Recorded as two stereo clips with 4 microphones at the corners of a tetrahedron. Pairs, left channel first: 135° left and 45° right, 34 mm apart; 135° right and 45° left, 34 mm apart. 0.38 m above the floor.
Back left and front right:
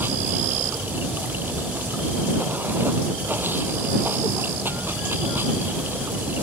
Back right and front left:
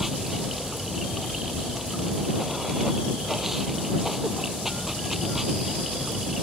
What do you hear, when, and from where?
0.0 s running water: 40° right